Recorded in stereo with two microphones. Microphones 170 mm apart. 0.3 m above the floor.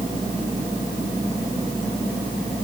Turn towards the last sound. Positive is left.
No sound to turn to.